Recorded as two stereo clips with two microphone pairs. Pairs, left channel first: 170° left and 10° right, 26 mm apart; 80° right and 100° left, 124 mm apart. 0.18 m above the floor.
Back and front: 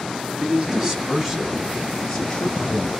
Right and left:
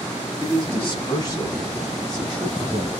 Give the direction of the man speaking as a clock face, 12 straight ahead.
2 o'clock.